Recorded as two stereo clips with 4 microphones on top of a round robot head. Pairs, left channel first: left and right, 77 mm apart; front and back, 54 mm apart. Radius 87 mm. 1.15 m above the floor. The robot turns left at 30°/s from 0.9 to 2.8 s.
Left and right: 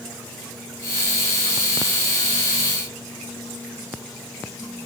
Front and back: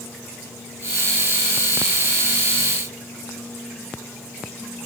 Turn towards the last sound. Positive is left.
No sound to turn to.